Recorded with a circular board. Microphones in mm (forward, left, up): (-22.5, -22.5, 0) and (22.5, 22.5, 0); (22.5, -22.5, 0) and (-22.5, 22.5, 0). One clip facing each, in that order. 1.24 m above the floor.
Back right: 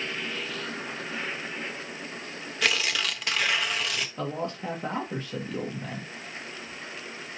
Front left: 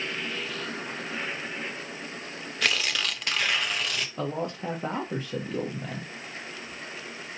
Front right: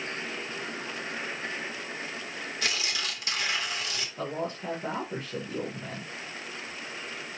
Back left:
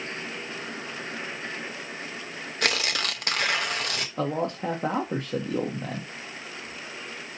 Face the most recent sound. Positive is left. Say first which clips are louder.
# front left 3 dB, back left 6 dB
turn(degrees=120)